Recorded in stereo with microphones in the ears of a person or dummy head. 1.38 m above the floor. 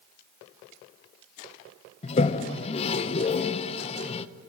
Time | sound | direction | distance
2.0 | a toilet flushing | 35° left (ahead or behind) | 0.7 m